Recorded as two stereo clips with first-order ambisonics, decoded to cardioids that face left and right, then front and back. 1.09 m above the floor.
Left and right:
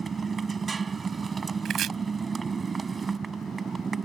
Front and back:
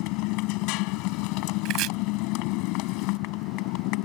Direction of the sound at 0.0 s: 20° right.